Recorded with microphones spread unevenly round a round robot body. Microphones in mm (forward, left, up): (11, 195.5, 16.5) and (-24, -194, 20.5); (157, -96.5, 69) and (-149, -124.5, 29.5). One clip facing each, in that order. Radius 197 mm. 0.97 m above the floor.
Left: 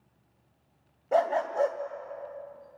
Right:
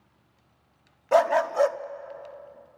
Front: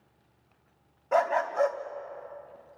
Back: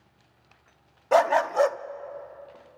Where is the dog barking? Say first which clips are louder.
Right 5 dB, back 5 dB; 145° right, 0.6 m.